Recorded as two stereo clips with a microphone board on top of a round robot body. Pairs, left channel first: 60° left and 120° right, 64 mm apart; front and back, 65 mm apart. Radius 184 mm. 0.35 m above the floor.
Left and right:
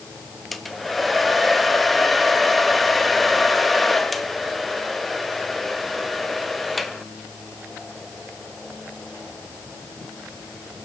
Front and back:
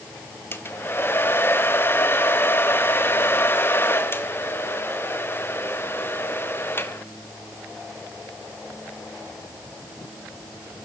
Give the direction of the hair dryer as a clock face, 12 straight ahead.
1 o'clock.